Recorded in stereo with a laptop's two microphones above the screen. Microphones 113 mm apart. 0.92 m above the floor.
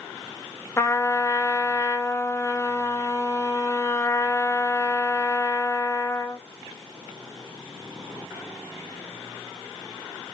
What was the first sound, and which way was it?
A trumpet, 25° left (ahead or behind).